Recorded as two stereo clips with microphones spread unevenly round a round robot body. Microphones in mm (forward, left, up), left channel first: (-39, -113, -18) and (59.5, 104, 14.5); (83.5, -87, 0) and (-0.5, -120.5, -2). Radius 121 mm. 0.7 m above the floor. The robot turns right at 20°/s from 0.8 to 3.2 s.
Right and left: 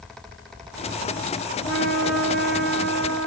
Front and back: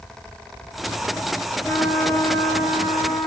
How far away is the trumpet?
About 2.5 m.